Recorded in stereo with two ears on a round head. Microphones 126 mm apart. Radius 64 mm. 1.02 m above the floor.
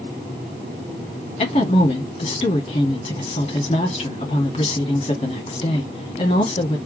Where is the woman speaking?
40° left (ahead or behind), 1.9 m.